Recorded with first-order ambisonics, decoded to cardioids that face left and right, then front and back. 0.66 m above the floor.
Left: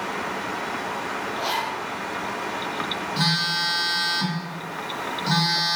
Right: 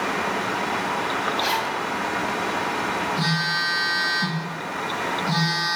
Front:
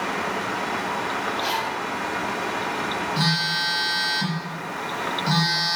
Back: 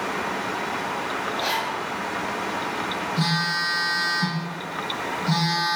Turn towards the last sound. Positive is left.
turn(degrees=45)